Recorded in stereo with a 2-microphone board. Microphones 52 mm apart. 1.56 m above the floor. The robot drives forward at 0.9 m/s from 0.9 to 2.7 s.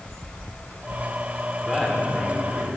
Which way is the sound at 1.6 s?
5° left (ahead or behind).